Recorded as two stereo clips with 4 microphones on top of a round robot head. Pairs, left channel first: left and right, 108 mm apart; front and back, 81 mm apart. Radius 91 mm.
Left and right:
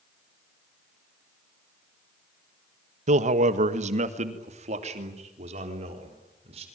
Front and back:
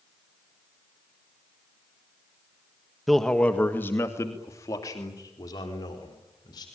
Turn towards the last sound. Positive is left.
turn(degrees=-50)